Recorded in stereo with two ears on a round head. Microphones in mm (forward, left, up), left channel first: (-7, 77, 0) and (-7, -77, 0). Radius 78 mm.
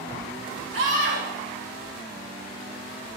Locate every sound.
0.7 s a scream: 70° right (ahead or behind), 3 m